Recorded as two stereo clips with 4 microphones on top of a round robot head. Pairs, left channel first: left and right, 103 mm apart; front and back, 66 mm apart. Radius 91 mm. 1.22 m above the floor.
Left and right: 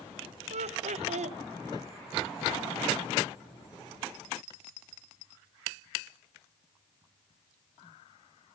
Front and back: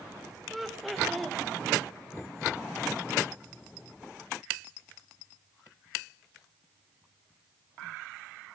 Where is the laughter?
90° right, 0.9 m.